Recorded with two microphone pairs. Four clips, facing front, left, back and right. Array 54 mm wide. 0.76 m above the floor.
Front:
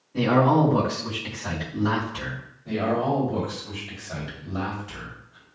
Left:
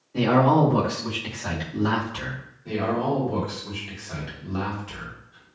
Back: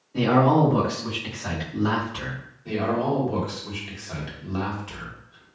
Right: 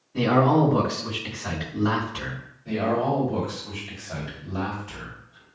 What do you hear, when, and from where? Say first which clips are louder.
0.1 s a man speaking: left 1 dB, back 1 dB; 110° left, 1.4 m
2.6 s a man speaking: right 1 dB, even; 160° left, 1.4 m